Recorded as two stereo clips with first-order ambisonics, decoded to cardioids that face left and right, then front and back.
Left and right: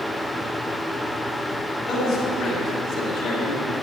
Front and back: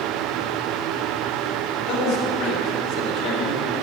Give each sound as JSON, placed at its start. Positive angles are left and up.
{"t": 1.9, "sound": "a man speaking", "azimuth_deg": 40, "distance_m": 2.5}